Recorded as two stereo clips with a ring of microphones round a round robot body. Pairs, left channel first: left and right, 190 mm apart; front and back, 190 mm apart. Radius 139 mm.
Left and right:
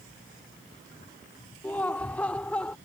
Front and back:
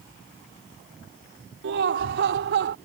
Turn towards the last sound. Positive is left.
turn(degrees=175)